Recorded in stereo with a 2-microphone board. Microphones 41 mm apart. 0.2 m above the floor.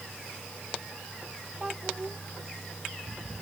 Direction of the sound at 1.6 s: 20° right (ahead or behind).